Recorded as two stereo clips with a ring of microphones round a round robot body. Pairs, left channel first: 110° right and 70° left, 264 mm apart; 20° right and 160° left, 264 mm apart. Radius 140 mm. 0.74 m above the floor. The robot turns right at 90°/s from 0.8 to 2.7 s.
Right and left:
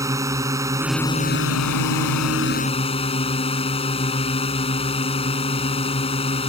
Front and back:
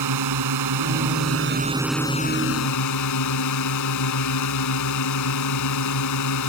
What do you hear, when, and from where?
0.0 s a drone: 145° left; by 6.5 s 45° right